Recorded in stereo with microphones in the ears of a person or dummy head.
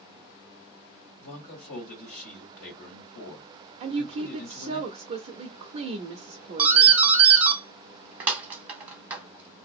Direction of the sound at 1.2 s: 70° left (ahead or behind).